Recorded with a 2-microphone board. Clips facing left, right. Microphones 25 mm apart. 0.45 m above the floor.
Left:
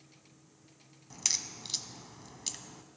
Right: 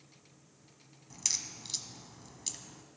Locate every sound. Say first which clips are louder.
1.1 s a crack: left 2 dB; 15° left (ahead or behind), 0.6 m